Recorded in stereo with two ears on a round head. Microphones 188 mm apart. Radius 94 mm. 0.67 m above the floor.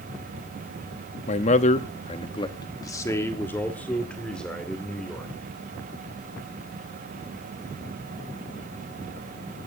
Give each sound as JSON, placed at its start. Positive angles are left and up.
{"t": 1.3, "sound": "a man speaking", "side_deg": 35, "distance_m": 0.8}